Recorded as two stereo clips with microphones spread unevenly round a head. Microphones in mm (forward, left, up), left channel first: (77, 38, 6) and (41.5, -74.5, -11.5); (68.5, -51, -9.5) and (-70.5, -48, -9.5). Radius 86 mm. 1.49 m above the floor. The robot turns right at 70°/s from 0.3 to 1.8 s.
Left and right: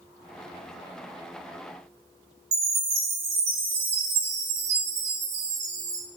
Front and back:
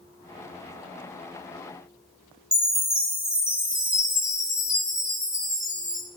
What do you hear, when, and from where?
2.5 s a chime: 100° right, 4 m